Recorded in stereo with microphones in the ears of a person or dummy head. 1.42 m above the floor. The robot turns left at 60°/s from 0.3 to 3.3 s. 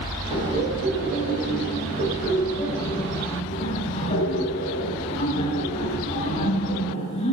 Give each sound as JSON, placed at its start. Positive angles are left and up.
{"t": 0.3, "sound": "laughter", "azimuth_deg": -35, "distance_m": 6.5}